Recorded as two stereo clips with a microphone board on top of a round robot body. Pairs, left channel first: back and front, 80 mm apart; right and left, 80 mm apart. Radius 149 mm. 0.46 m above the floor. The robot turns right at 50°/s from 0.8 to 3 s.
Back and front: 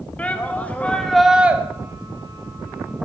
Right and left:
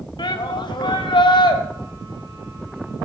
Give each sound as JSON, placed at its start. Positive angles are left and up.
{"t": 0.2, "sound": "a shout", "azimuth_deg": -105, "distance_m": 2.5}